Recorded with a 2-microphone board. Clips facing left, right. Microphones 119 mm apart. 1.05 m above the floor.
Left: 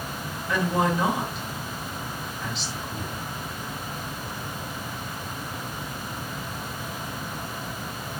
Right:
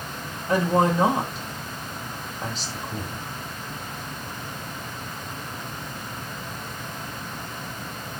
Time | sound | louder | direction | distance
0.5 | a woman speaking | right 4 dB | 45° right (ahead or behind) | 2.5 m